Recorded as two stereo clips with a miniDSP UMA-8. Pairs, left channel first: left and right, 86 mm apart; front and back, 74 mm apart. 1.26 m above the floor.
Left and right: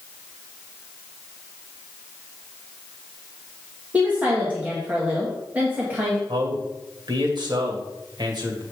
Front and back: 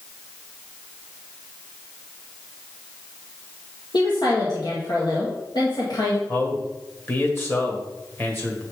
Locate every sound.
3.9 s a woman speaking: 20° right, 1.9 m
6.3 s a man speaking: 60° right, 1.9 m